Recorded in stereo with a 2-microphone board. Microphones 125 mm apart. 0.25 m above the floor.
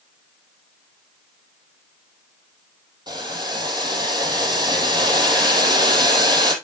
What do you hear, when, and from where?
3.1 s boiling: 35° right (ahead or behind), 2 m